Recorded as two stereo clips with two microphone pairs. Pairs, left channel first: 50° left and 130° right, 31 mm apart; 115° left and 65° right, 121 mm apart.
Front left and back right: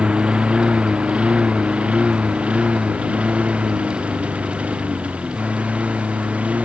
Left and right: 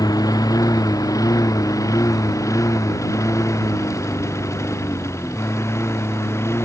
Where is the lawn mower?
175° left; by 6.6 s 175° right.